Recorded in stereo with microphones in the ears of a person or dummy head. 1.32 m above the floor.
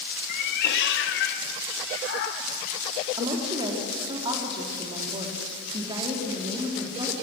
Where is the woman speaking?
25° right (ahead or behind), 3 m.